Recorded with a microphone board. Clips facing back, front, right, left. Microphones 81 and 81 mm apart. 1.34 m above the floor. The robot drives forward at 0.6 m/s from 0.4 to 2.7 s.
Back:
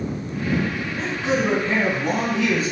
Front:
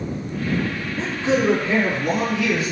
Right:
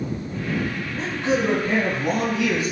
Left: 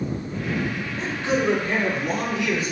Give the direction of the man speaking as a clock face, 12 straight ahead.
3 o'clock.